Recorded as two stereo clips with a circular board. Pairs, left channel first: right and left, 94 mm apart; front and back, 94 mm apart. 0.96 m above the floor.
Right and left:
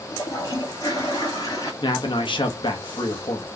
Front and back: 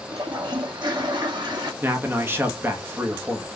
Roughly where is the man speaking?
Behind right.